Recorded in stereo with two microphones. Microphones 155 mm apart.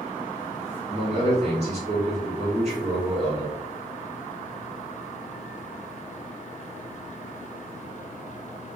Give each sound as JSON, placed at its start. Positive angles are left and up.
{"t": 0.9, "sound": "a man speaking", "side_deg": -45, "distance_m": 1.7}